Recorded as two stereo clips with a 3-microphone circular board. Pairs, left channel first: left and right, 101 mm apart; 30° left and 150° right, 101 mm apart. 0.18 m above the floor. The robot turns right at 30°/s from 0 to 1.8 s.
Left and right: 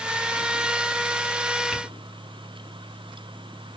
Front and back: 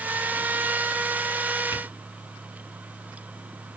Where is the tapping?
5° right, 1.4 m.